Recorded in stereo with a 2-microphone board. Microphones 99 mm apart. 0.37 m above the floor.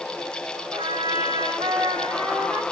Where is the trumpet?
50° right (ahead or behind), 3 m.